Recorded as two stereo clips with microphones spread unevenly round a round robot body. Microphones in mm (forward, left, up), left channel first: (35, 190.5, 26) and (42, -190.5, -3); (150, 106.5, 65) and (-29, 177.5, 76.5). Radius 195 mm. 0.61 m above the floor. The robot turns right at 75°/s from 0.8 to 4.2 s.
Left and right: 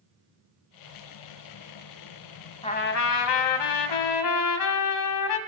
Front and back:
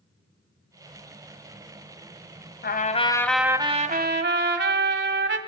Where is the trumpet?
15° left, 2.0 m; by 5.4 s 135° left, 2.0 m.